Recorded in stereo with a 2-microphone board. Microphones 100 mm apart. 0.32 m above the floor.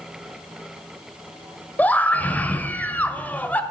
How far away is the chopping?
No chopping in this recording.